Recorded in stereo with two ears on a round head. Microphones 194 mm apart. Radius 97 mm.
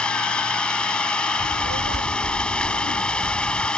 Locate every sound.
0.0 s an engine running: 5° left (ahead or behind)
1.4 s a child speaking: 65° right (ahead or behind)